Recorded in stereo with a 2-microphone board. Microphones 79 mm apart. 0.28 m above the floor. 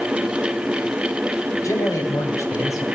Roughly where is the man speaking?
Left.